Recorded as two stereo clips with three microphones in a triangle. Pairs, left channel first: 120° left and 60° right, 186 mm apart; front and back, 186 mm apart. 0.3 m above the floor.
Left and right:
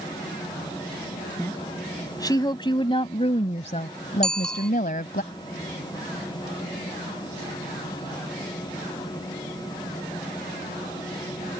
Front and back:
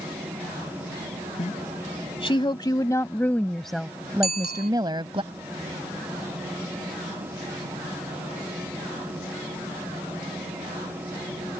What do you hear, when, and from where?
1.4 s a woman speaking: 45° left; by 5.2 s 130° left
4.2 s a bicycle bell: 35° left